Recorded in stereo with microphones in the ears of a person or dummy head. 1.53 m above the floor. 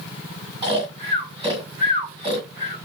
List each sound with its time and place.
0.6 s snoring: 30° right (ahead or behind), 1.9 m